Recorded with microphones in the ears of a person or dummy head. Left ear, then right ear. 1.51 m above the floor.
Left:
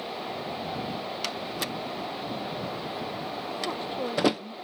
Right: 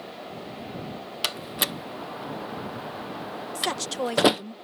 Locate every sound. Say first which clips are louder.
1.2 s a door slam: right 8 dB; 30° right (ahead or behind)
3.5 s a woman speaking: right 6 dB; 65° right (ahead or behind)